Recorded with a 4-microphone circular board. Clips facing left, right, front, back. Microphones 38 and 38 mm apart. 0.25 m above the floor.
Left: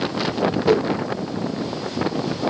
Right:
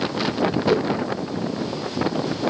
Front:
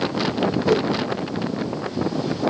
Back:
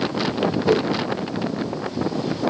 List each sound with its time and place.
0.7 s a whoosh: 115° right, 1.8 m